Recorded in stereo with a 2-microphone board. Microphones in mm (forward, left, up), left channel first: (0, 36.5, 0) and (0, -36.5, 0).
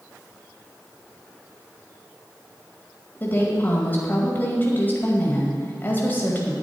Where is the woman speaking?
30° left (ahead or behind), 1.9 m.